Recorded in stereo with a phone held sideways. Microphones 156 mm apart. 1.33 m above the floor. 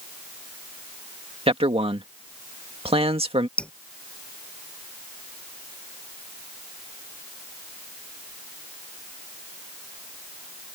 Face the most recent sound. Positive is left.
turn(degrees=5)  # may be behind; listen again after turning